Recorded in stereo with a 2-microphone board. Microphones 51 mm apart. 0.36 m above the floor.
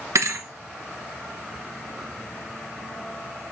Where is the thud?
75° right (ahead or behind), 1.0 m.